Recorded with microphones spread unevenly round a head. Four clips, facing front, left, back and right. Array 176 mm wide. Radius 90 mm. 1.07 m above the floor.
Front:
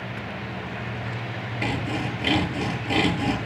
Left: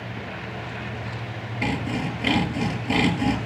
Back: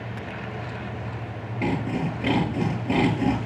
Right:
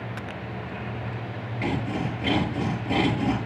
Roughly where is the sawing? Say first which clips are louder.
Left 1 dB, back 2 dB; behind.